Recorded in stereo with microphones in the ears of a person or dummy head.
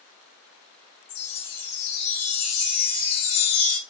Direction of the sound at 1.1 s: 70° left (ahead or behind).